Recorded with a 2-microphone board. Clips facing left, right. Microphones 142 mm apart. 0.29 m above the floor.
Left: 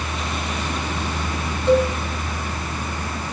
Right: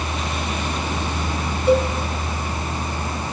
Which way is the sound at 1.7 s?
10° right (ahead or behind).